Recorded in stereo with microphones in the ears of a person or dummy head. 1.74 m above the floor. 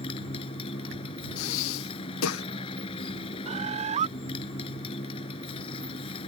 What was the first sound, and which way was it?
A motorcycle, 30° left (ahead or behind).